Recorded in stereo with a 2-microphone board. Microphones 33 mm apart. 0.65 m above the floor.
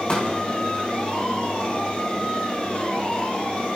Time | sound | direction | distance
0.1 | a pop | 35° left (ahead or behind) | 6.5 m